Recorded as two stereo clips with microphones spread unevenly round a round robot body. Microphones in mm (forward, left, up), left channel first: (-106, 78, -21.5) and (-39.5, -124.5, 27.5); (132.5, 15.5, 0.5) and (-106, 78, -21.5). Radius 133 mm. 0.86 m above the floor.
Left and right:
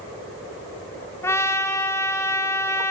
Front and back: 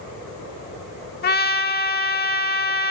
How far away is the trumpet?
About 0.8 m.